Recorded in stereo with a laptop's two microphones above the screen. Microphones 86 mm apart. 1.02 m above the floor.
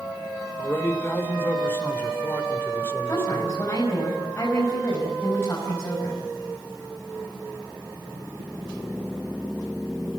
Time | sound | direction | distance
0.6 | a man speaking | 25° left (ahead or behind) | 3 m
3.1 | a woman speaking | 25° left (ahead or behind) | 5.5 m